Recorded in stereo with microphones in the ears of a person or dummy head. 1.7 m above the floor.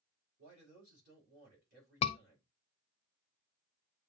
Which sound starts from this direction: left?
A scream, at 2.0 s.